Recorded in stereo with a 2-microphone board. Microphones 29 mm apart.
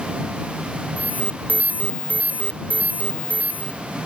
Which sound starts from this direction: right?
An alarm, at 1.0 s.